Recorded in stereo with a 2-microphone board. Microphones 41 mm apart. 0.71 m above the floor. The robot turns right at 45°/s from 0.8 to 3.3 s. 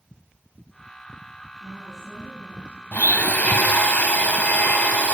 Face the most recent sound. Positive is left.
turn(degrees=40)  # may be behind; listen again after turning